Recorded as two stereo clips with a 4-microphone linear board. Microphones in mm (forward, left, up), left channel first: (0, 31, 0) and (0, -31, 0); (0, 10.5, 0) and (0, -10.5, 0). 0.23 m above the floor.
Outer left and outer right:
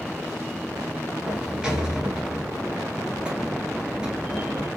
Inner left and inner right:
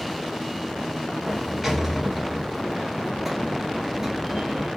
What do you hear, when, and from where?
1.3 s a sliding door: 15° right (ahead or behind), 0.8 m